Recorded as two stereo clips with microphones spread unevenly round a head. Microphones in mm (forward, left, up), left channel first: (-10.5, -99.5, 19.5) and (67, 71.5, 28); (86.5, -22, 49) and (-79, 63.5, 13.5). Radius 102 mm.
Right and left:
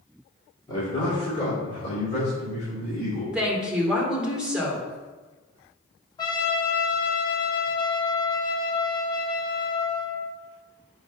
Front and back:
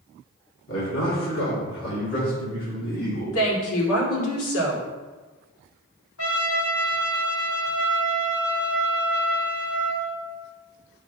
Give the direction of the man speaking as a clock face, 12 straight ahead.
2 o'clock.